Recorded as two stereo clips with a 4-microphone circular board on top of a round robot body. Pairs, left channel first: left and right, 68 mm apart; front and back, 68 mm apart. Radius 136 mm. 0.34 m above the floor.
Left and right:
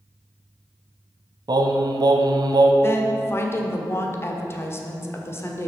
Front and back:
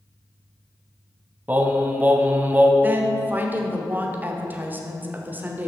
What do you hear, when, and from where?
1.5 s singing: 115° right, 0.9 m
2.8 s a woman speaking: 130° left, 1.7 m